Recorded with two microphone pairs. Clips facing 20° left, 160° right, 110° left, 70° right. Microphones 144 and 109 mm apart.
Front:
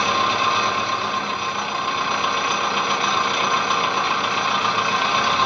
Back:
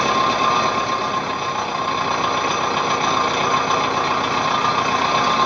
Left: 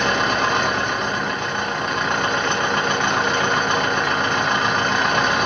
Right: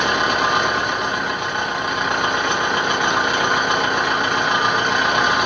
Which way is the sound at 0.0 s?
150° right.